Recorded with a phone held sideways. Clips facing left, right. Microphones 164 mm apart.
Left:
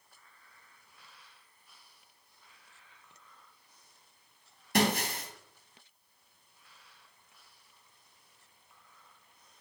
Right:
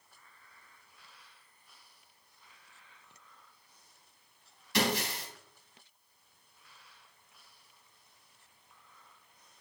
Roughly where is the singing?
No singing in this recording.